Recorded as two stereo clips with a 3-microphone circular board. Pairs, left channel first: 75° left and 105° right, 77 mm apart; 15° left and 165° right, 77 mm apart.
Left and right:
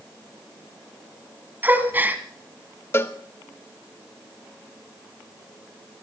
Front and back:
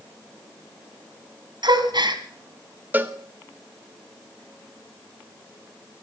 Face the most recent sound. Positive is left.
turn(degrees=130)